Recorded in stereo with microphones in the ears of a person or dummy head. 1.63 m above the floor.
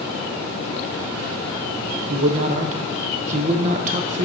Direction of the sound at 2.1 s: 35° right (ahead or behind).